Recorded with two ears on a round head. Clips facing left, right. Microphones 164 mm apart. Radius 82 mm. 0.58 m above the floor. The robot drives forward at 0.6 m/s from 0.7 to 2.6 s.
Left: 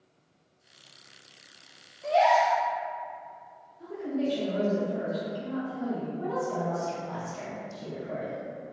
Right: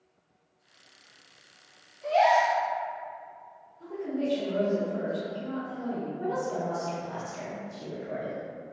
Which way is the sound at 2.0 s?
5° left (ahead or behind).